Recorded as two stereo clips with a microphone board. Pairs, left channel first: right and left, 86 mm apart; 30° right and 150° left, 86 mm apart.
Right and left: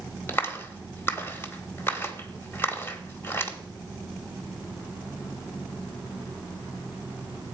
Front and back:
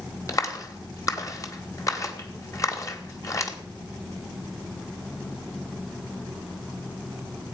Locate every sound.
0.3 s a clap: 40° right, 1.4 m